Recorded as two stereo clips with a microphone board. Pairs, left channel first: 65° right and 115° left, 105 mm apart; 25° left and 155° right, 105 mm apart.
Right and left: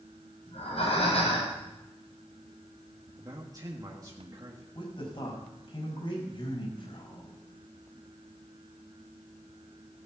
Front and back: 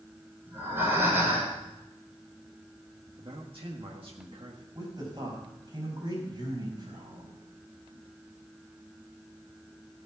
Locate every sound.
0.5 s breathing: 90° right, 4.5 m
3.2 s a man speaking: 165° left, 1.6 m
4.8 s a man speaking: 105° right, 5 m